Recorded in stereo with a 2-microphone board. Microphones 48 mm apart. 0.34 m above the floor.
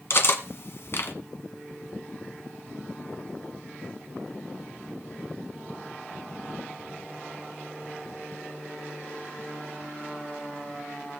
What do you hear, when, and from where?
0.1 s cutlery clinking: 55° left (ahead or behind), 1.5 m